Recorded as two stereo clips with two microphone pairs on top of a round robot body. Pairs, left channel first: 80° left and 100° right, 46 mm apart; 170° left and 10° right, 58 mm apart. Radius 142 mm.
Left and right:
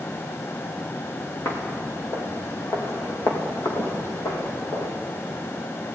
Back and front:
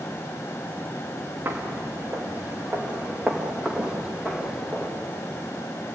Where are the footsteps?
45° left, 3.5 m; by 4.9 s 80° left, 3.5 m.